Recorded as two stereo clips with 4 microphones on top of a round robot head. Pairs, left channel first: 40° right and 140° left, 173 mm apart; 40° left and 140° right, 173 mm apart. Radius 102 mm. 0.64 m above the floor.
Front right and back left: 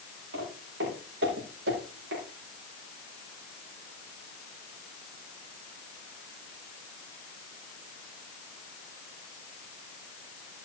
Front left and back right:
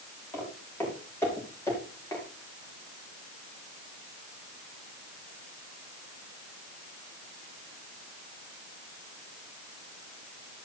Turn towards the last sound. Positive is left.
turn(degrees=115)